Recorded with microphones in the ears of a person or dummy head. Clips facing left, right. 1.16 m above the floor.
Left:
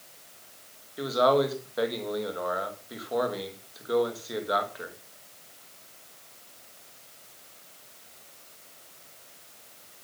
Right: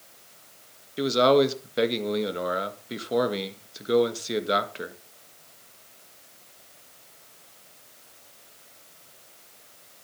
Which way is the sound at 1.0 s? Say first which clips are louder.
Right 4 dB; 35° right (ahead or behind).